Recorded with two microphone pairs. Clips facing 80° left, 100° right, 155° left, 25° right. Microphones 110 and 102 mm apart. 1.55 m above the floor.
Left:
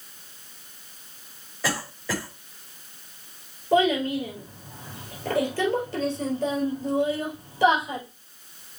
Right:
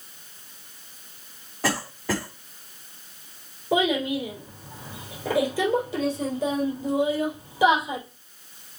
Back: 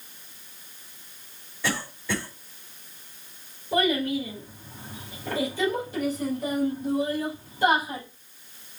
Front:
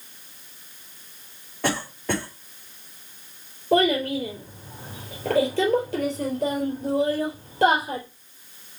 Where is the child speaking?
25° right, 4 m.